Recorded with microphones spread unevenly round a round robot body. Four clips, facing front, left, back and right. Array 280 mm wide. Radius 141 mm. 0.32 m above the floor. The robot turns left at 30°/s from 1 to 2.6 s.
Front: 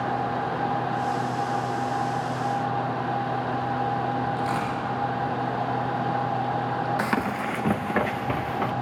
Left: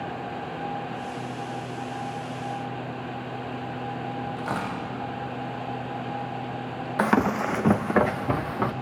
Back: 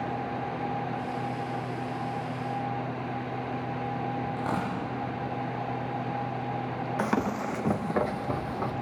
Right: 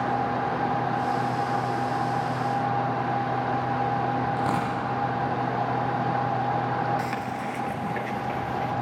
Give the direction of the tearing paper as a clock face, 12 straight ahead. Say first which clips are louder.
Right 4 dB, front 4 dB; 3 o'clock.